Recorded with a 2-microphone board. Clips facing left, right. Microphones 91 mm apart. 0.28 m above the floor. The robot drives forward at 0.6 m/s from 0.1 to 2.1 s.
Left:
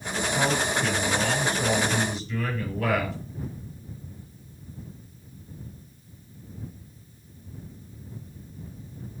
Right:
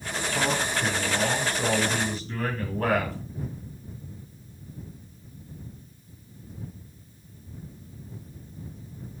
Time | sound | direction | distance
0.3 | a man speaking | 35° right (ahead or behind) | 4.5 m